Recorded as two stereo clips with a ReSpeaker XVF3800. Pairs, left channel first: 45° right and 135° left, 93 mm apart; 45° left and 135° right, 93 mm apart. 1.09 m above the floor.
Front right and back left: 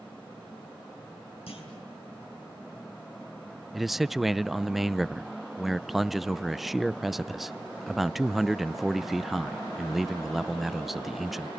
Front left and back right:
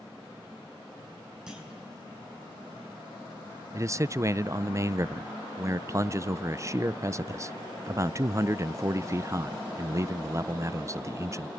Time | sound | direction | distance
1.5 | a clunk | 55° right | 8 m
3.7 | a man speaking | 140° right | 0.5 m